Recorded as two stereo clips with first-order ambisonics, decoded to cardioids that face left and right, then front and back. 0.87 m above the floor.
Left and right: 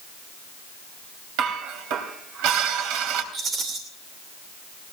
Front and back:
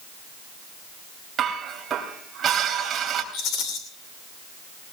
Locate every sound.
1.4 s dishes clattering: 110° right, 3 m
3.3 s a rattle: 35° right, 3 m